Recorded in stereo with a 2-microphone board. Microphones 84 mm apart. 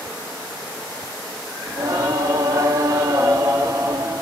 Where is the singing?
40° right (ahead or behind), 0.7 m.